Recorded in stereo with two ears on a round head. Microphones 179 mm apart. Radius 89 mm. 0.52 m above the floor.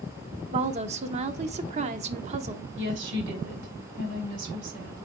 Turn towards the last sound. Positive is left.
turn(degrees=-65)  # may be behind; listen again after turning